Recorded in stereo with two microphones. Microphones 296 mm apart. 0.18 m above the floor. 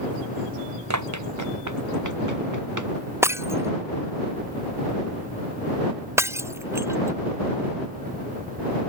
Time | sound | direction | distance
0.9 | running footsteps | 65° right (ahead or behind) | ?
3.2 | breaking glass | 10° right (ahead or behind) | ?